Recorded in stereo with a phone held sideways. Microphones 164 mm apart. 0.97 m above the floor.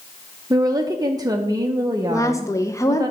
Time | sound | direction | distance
0.5 | a woman speaking | 25° right (ahead or behind) | 0.6 m
2.1 | a woman speaking | 20° left (ahead or behind) | 0.5 m